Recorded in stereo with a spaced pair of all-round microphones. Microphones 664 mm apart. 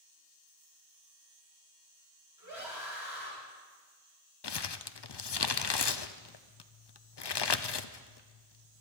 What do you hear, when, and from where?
2.4 s a scream: 30° right (ahead or behind), 8.5 m
4.4 s crumpling: 45° left (ahead or behind), 0.6 m